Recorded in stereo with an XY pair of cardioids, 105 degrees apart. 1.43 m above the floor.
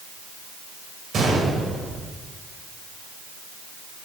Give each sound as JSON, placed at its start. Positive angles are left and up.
{"t": 1.1, "sound": "a gunshot", "azimuth_deg": -50, "distance_m": 4.5}